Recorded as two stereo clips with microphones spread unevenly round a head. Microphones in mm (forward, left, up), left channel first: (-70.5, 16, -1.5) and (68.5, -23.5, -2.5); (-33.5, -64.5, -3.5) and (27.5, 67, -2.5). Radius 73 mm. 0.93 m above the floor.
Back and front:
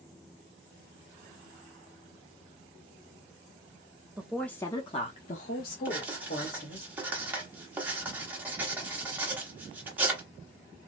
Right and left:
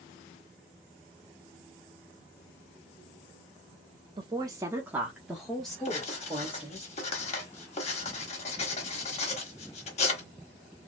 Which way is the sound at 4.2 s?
50° left.